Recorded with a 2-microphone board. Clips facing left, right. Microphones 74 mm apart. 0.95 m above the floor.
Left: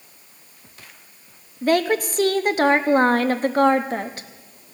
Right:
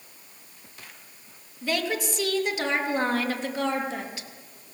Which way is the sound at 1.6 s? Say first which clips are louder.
Left 9 dB; 45° left (ahead or behind).